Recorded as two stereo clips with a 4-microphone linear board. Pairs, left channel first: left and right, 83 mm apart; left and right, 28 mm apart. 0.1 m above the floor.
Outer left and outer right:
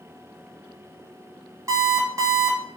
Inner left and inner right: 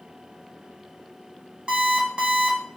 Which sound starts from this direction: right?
An alarm clock, at 1.7 s.